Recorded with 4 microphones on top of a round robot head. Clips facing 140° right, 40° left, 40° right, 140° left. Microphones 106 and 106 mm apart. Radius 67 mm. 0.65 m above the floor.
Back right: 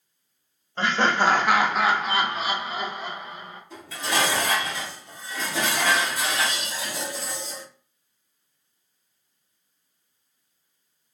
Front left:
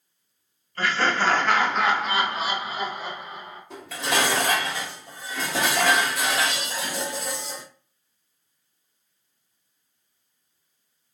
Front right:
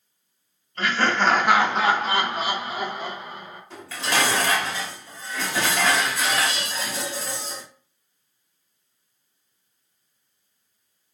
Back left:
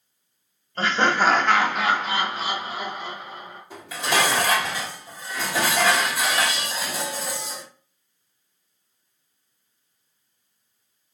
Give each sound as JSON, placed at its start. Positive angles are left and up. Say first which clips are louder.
{"t": 0.8, "sound": "laughter", "louder": "back right 2 dB, back left 2 dB", "azimuth_deg": 165, "distance_m": 1.0}
{"t": 3.7, "sound": "dishes clattering", "louder": "front left 1 dB, back left 2 dB", "azimuth_deg": 65, "distance_m": 1.6}